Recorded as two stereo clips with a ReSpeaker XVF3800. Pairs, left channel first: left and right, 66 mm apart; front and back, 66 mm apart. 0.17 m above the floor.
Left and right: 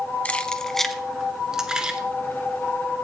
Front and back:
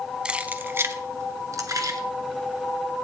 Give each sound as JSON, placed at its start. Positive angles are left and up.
{"t": 0.2, "sound": "keys jangling", "azimuth_deg": 125, "distance_m": 0.7}